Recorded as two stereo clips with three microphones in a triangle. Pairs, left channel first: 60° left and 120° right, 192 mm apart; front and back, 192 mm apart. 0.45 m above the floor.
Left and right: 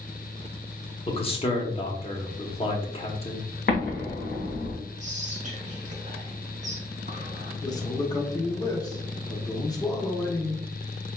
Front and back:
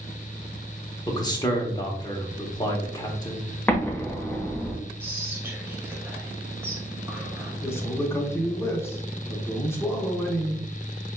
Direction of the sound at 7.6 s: 50° left.